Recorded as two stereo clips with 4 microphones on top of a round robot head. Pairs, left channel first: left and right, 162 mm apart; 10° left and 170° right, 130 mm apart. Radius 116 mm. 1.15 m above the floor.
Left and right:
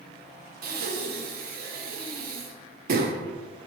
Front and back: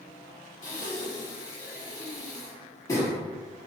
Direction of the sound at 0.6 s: 60° right.